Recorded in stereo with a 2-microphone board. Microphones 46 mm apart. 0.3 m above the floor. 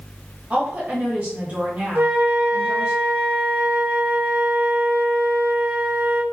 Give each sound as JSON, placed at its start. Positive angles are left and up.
{"t": 0.5, "sound": "a woman speaking", "side_deg": -30, "distance_m": 1.4}
{"t": 1.9, "sound": "a flute", "side_deg": -50, "distance_m": 1.0}